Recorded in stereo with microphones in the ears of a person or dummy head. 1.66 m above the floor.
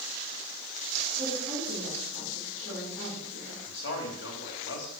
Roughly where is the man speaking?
Left.